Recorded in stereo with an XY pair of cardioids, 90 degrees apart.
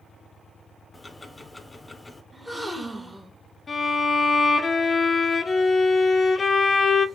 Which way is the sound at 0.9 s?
20° left.